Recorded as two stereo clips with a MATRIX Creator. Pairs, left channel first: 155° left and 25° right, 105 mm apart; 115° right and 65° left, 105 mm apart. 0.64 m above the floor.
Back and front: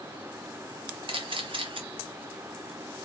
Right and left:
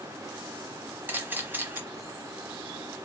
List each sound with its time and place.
1.1 s a camera shutter: straight ahead, 0.9 m